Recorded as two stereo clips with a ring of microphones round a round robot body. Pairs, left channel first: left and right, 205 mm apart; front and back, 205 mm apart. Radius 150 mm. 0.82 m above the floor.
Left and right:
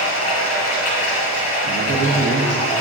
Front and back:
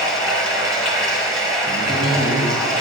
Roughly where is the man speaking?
Right.